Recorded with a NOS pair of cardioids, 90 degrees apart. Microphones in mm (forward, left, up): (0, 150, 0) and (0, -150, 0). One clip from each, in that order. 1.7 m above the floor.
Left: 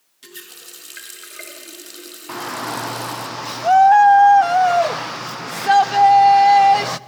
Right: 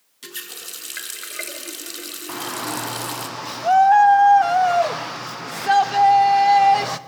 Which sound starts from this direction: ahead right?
A running tap, at 0.2 s.